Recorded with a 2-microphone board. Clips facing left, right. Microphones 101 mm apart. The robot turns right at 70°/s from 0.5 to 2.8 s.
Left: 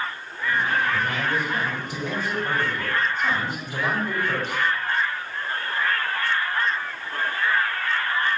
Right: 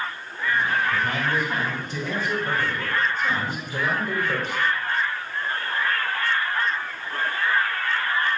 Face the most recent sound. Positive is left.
turn(degrees=75)